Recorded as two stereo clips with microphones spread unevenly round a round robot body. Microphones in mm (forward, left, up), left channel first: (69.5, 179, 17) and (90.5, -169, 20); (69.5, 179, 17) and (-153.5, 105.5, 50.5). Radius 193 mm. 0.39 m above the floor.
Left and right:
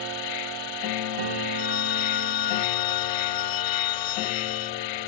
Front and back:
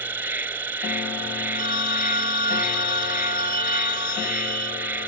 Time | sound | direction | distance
0.0 | an insect | 120° left | ?
1.5 | a phone ringing | 130° left | ?